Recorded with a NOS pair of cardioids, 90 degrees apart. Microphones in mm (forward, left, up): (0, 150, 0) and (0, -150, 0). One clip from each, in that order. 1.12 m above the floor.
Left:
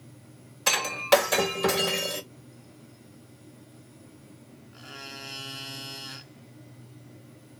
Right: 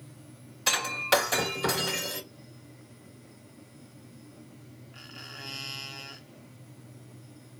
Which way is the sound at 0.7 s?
20° left.